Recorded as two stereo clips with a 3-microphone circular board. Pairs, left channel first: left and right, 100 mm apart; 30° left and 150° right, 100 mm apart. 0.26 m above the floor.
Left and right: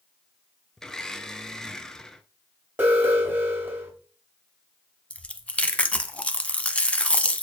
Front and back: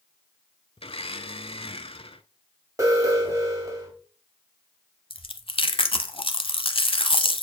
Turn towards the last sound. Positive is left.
turn(degrees=15)